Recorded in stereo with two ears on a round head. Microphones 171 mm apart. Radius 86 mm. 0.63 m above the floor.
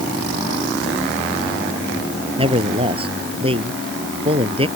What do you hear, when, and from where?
2.4 s a man speaking: 30° right (ahead or behind)